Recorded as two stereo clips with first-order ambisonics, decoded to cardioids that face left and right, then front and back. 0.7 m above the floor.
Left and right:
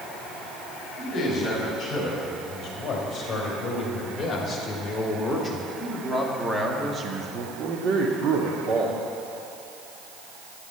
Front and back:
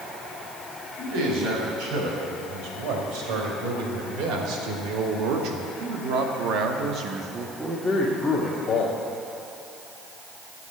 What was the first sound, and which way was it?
A man speaking, 150° left.